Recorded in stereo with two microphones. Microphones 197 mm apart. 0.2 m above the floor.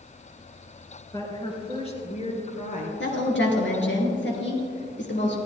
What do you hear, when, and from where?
1.1 s a woman speaking: 20° left (ahead or behind), 3 m; by 2.9 s 45° left (ahead or behind), 3.5 m
3.0 s a woman speaking: 70° left (ahead or behind), 3.5 m